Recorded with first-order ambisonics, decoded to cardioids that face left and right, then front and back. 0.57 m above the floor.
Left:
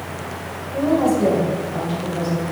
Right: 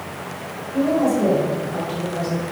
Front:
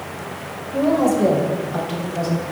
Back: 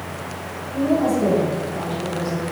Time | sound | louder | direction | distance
0.7 | a woman speaking | left 1 dB, front 2 dB | 15° left | 2.5 m